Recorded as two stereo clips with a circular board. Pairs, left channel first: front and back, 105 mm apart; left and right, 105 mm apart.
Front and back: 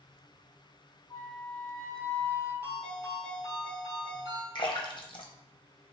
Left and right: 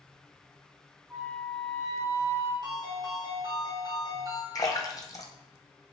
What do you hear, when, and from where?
1.1 s a flute: 40° right, 1.9 m
2.6 s a ringtone: 120° right, 1.9 m
4.5 s a splash: 35° left, 0.7 m